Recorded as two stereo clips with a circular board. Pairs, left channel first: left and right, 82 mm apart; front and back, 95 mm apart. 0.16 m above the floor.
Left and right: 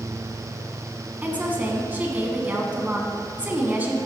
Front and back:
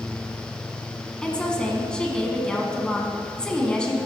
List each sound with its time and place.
1.2 s a woman speaking: 65° right, 1.2 m